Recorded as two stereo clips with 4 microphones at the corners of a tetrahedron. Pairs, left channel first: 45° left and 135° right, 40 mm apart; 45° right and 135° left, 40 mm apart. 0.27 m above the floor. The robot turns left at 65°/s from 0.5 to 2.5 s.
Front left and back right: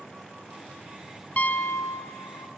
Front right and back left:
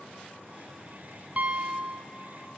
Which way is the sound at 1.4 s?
85° left.